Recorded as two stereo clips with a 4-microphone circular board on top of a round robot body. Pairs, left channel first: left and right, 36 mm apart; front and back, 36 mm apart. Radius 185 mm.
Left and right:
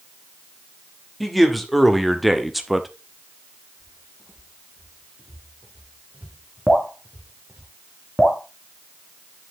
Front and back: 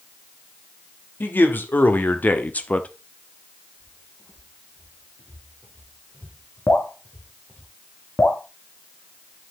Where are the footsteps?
20° right, 7 m; by 7.7 s 65° right, 3.5 m.